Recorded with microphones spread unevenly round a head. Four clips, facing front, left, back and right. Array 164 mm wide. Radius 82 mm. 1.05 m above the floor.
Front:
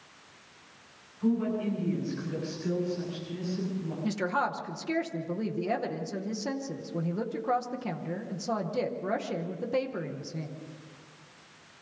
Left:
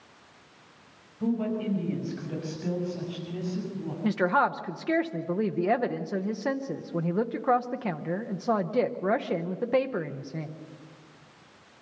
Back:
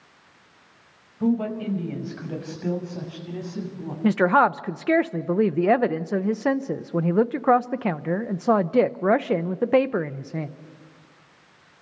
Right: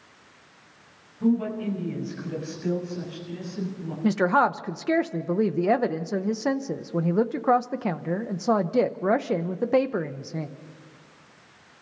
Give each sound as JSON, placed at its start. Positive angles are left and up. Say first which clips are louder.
{"t": 1.2, "sound": "a woman speaking", "louder": "right 4 dB, back 4 dB", "azimuth_deg": 175, "distance_m": 5.5}
{"t": 4.0, "sound": "a woman speaking", "louder": "right 3 dB, back 12 dB", "azimuth_deg": -170, "distance_m": 0.8}